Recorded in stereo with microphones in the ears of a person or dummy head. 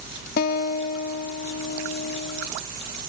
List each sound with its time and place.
0.4 s a guitar: 55° left (ahead or behind), 1.1 m